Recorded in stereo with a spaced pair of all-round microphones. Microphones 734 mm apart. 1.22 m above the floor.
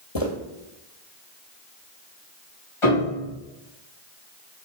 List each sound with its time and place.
0.1 s footsteps: 35° left (ahead or behind), 1.7 m
2.8 s a piano: 45° left (ahead or behind), 3.5 m